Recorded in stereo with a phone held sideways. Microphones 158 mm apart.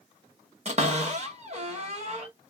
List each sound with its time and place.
0.7 s a cupboard door: 45° right (ahead or behind), 1.1 m